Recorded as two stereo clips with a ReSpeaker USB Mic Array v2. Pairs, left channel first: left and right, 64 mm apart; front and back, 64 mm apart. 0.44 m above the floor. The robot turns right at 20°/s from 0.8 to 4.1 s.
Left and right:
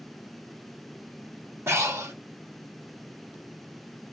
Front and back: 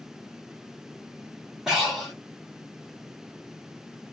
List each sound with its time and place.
1.7 s breathing: 100° right, 1.8 m; by 2.1 s 90° right, 1.8 m